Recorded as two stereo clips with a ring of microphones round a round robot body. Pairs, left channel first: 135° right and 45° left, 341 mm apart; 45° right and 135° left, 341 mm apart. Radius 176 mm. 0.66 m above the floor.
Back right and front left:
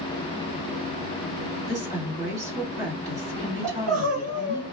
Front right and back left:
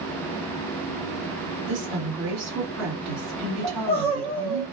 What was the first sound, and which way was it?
A woman speaking, 125° left.